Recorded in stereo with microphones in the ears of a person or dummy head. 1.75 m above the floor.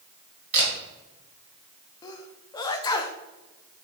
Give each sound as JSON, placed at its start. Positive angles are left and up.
{"t": 0.5, "sound": "a camera shutter", "side_deg": -35, "distance_m": 3.0}
{"t": 2.0, "sound": "a sneeze", "side_deg": 20, "distance_m": 0.8}